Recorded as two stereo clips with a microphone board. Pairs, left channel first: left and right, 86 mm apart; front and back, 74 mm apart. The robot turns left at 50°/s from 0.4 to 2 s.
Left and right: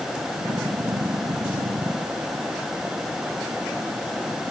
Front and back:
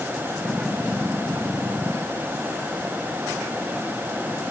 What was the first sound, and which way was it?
Only background noise.